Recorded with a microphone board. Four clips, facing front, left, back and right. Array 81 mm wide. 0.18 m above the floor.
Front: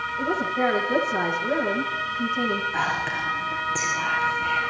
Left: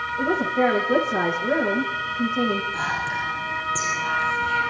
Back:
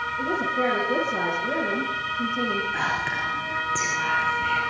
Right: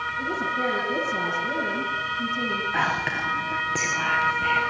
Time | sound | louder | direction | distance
0.2 | a woman speaking | left 7 dB, front 1 dB | 85° left | 6.5 m
2.7 | whispering | right 1 dB, front 1 dB | 90° right | 3.5 m